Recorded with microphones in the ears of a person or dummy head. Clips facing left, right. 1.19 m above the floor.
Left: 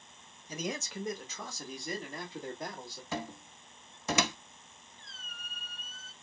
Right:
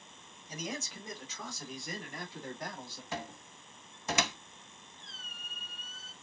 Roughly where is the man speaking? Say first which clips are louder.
Left 3 dB; left.